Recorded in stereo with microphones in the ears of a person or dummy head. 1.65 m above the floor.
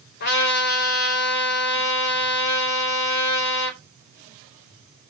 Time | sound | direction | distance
0.2 | a trumpet | 55° left (ahead or behind) | 3.5 m